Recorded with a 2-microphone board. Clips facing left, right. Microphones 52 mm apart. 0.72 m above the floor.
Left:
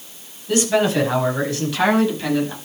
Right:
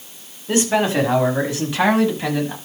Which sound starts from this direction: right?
A man speaking, at 0.5 s.